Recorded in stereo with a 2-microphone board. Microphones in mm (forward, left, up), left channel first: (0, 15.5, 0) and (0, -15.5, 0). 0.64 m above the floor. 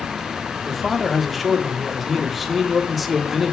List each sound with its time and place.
0.7 s a man speaking: 5° right (ahead or behind), 1.3 m